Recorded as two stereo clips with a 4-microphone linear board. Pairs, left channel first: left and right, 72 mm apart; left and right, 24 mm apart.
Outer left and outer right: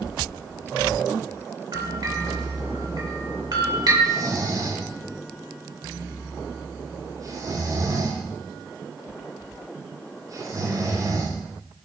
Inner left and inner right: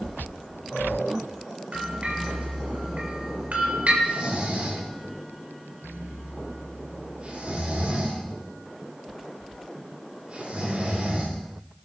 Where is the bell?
65° right (ahead or behind), 3.5 m.